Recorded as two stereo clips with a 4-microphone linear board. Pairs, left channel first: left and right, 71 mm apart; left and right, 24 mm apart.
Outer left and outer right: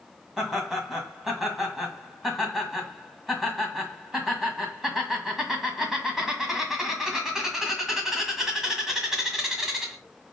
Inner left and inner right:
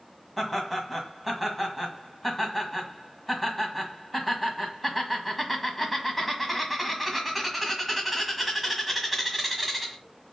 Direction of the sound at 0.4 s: 5° right (ahead or behind).